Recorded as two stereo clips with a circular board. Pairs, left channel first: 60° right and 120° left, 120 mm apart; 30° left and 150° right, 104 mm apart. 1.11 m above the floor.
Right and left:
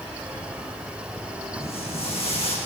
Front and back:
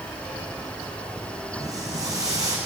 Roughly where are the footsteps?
Right.